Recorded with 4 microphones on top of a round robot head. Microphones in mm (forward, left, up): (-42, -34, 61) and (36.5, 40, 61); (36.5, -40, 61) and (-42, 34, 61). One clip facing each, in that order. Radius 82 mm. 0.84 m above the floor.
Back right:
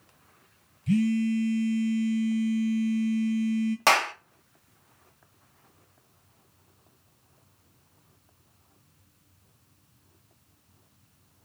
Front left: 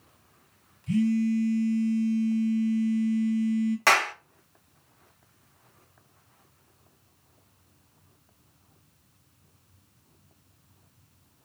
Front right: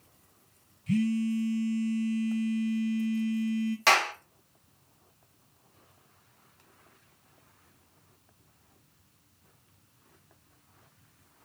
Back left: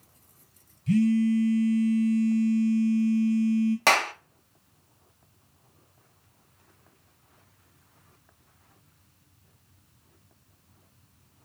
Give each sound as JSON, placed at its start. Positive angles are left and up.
{"t": 0.9, "sound": "a phone buzzing", "azimuth_deg": -165, "distance_m": 1.3}
{"t": 3.9, "sound": "a clap", "azimuth_deg": 160, "distance_m": 1.0}